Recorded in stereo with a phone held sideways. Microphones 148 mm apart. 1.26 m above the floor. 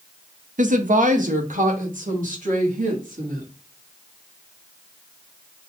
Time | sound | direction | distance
0.6 | a woman speaking | 65° right (ahead or behind) | 0.6 m